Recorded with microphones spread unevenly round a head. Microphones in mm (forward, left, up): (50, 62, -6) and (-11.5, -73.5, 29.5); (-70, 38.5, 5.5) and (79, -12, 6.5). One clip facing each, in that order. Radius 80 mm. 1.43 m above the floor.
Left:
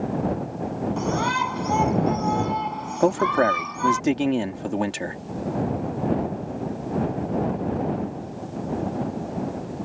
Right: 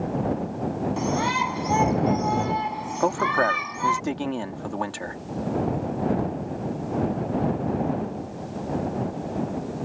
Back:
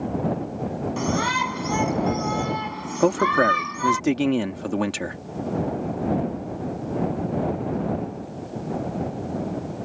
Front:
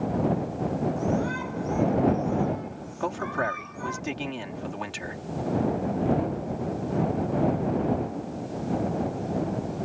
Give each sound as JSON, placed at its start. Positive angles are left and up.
{"t": 1.0, "sound": "a shout", "azimuth_deg": 160}
{"t": 3.0, "sound": "a man speaking", "azimuth_deg": 135}